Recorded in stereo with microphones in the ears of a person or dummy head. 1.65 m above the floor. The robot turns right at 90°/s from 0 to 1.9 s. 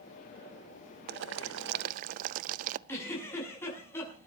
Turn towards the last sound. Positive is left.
turn(degrees=15)  # may be behind; listen again after turning